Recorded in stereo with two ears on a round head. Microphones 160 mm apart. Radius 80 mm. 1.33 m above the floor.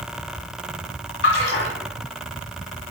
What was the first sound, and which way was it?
A splash, 65° left (ahead or behind).